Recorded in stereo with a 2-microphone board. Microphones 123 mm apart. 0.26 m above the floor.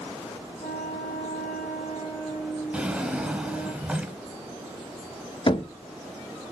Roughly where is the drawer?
Centre.